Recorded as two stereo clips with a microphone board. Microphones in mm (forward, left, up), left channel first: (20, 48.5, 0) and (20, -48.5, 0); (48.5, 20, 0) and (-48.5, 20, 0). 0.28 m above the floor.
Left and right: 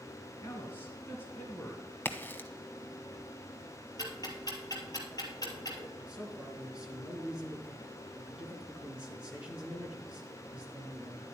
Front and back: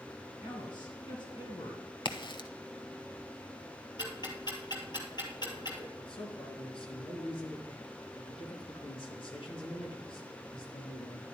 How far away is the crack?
About 1.0 m.